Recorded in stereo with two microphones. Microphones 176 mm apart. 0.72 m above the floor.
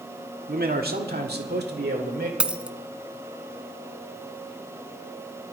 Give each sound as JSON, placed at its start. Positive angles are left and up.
{"t": 0.5, "sound": "a man speaking", "side_deg": -60, "distance_m": 1.5}
{"t": 2.4, "sound": "a dropped coin", "side_deg": -5, "distance_m": 0.7}